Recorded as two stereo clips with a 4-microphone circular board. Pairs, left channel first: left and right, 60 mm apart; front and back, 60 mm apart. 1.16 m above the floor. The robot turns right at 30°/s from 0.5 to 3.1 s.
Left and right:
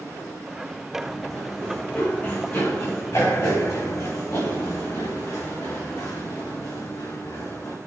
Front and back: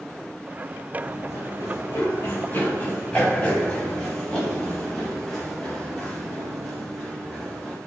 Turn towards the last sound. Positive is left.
turn(degrees=90)